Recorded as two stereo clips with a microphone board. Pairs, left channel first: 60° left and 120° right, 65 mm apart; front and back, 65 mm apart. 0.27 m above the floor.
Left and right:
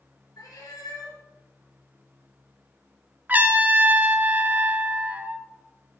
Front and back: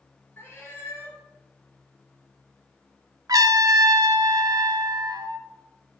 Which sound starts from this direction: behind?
A trumpet, at 3.3 s.